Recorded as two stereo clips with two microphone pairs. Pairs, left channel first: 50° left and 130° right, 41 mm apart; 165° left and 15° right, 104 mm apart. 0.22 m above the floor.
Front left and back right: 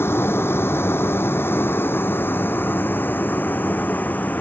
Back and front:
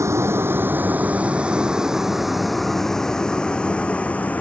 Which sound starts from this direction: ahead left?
A vehicle, at 0.0 s.